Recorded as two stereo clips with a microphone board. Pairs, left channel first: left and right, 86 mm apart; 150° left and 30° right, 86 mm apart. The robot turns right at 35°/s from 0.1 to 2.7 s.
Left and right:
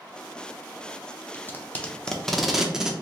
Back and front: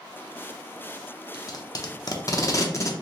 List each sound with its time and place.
1.3 s tape being pulled: 140° left, 0.5 m; by 2.9 s 170° right, 0.5 m